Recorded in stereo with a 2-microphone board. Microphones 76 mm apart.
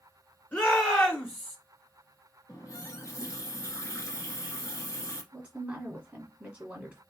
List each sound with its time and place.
0.5 s a shout: 20° left (ahead or behind), 2 m
2.5 s a running tap: 40° left (ahead or behind), 1.4 m
5.3 s a woman speaking: 15° right (ahead or behind), 1.4 m